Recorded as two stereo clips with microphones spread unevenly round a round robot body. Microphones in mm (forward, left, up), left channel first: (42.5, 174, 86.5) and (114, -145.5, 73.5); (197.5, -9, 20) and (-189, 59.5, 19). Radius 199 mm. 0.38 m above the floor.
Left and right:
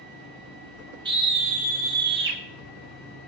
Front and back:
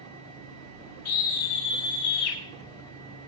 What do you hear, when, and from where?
1.1 s a scream: 5° right, 1.4 m; by 2.4 s 25° right, 1.9 m